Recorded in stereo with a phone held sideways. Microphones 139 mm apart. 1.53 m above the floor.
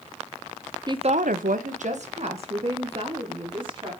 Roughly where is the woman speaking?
Right.